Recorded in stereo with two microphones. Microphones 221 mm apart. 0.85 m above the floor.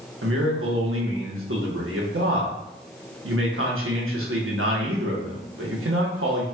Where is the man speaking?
70° right (ahead or behind), 0.9 m.